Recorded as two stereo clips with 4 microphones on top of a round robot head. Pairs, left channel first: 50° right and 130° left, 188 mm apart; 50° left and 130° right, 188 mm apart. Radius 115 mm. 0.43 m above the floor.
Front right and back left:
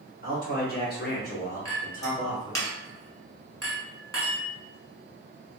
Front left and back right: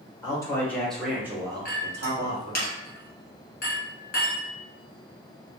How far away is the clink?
About 1.5 m.